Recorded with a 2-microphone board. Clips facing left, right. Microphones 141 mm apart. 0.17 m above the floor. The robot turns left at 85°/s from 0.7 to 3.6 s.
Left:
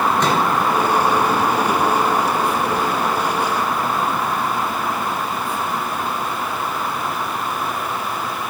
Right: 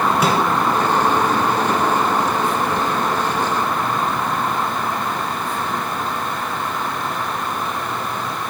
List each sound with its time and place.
0.2 s a microwave: 10° right (ahead or behind), 2 m